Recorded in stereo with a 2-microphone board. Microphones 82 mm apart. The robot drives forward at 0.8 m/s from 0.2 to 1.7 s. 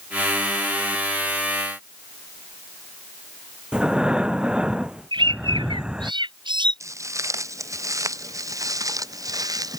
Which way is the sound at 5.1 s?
85° right.